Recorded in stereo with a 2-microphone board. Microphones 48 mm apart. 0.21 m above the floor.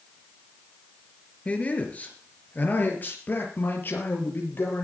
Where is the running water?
I don't hear running water.